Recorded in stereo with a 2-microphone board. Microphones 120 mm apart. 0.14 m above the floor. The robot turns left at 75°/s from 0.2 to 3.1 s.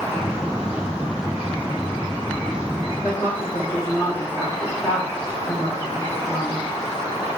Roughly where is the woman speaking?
Left.